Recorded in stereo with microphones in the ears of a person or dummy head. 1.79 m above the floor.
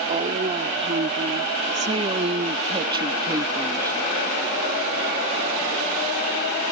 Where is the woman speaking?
35° right (ahead or behind); by 4.0 s 15° right (ahead or behind).